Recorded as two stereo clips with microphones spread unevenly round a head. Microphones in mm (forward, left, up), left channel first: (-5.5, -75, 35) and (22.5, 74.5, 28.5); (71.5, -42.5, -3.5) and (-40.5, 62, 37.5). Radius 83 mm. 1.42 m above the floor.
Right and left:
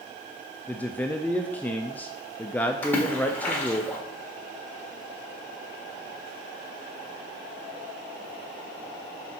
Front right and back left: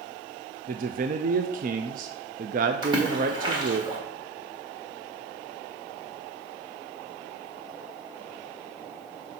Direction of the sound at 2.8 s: 175° right.